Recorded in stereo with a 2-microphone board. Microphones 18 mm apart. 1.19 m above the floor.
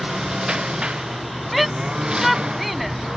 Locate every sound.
0.0 s a lawn mower: 55° right (ahead or behind); by 3.2 s 50° right (ahead or behind)
1.5 s a shout: 5° right (ahead or behind)